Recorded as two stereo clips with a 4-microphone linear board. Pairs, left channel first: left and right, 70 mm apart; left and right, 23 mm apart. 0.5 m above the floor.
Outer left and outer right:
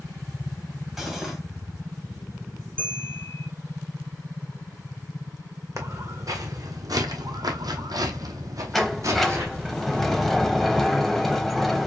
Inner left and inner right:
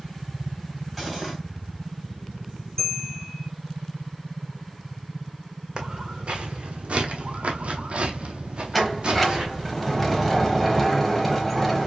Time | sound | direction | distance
1.0 | cutlery clinking | 5° right (ahead or behind) | 1.6 m
2.8 | a bell | 15° left (ahead or behind) | 2.5 m
5.8 | footsteps | 45° right (ahead or behind) | 1.5 m
8.7 | a sliding door | centre (ahead or behind) | 0.9 m